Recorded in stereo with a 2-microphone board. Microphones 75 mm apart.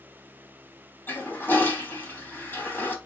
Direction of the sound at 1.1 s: 25° left (ahead or behind).